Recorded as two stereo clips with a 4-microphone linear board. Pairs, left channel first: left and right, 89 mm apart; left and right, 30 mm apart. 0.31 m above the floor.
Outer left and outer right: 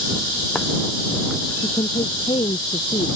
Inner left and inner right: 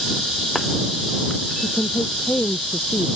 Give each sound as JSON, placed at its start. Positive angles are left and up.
{"t": 1.6, "sound": "a woman speaking", "side_deg": 85}